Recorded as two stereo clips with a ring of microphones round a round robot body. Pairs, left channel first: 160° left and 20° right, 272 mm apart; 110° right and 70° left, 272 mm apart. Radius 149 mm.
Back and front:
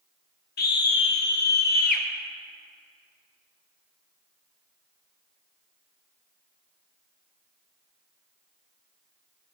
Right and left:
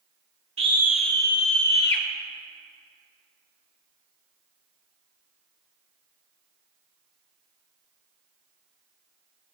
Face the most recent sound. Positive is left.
turn(degrees=-150)